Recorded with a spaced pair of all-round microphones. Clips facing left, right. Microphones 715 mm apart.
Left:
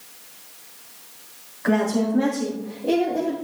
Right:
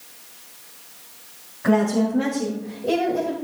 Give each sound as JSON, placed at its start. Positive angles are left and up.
{"t": 1.6, "sound": "a woman speaking", "side_deg": -60, "distance_m": 3.5}